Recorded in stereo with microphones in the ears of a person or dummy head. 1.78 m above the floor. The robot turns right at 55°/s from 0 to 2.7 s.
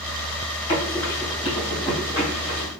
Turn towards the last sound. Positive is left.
turn(degrees=-55)  # may be behind; listen again after turning